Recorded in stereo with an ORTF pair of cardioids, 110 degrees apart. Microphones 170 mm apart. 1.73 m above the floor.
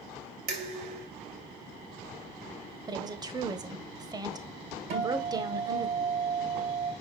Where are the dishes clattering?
65° right, 3 m.